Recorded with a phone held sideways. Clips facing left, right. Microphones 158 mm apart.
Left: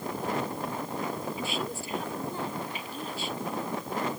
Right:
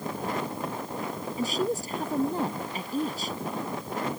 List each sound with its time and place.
1.4 s a woman speaking: 40° right (ahead or behind)